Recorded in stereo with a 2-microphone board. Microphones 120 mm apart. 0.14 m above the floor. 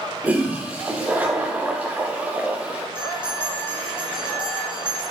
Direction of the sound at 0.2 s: 15° right (ahead or behind).